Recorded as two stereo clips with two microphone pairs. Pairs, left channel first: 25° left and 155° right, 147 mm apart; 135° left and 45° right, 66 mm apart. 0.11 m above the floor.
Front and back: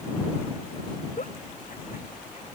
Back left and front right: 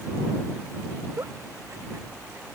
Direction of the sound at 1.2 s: Straight ahead.